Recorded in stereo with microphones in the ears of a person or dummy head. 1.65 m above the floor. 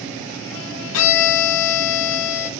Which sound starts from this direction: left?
A violin, at 0.9 s.